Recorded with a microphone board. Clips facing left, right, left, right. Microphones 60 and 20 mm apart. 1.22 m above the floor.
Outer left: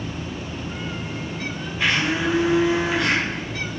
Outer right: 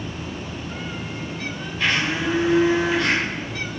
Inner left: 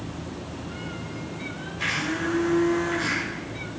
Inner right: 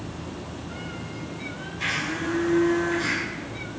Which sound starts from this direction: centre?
A blender, at 1.8 s.